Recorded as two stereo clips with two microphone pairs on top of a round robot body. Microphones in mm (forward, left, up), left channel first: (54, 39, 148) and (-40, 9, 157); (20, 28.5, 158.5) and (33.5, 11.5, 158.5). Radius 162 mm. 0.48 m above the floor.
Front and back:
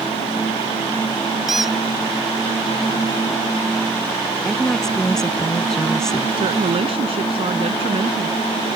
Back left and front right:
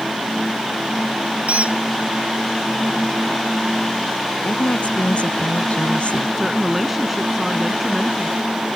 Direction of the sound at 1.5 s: 75° right.